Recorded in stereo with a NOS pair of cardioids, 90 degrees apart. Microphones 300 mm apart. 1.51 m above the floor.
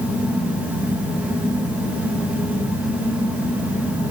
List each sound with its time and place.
0.0 s a fan: 5° right, 1.5 m